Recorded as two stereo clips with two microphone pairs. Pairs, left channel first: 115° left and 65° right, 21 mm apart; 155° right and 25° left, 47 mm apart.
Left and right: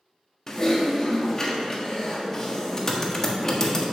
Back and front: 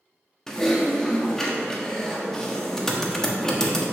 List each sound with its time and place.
0.5 s typing on a keyboard: 145° left, 1.2 m